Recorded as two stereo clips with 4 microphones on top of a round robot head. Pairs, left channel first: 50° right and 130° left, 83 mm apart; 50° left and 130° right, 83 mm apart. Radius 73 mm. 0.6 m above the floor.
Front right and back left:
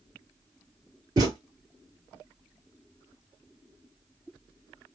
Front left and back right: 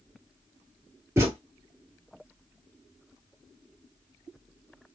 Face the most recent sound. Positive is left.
turn(degrees=170)